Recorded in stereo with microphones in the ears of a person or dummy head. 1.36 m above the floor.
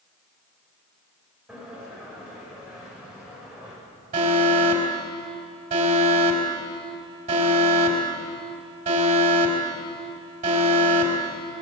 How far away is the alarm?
About 4.5 m.